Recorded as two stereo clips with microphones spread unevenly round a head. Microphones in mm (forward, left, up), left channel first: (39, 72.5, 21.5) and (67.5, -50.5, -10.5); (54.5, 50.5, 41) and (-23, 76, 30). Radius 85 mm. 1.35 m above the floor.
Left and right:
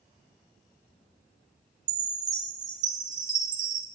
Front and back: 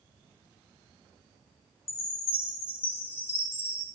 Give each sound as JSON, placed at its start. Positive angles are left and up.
{"t": 1.9, "sound": "a chime", "azimuth_deg": -50, "distance_m": 1.9}